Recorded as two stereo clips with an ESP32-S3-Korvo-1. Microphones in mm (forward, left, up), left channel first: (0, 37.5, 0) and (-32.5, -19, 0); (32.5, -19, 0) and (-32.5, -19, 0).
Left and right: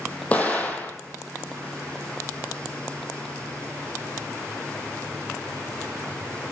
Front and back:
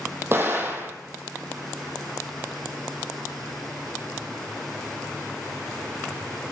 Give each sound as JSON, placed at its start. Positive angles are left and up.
{"t": 0.3, "sound": "an explosion", "azimuth_deg": 125, "distance_m": 0.9}